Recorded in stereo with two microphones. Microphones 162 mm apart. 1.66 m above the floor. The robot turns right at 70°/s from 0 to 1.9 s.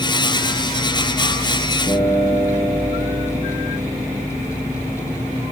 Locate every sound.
1.9 s a guitar: 35° right (ahead or behind), 5.5 m; by 4.3 s 30° right (ahead or behind), 5.5 m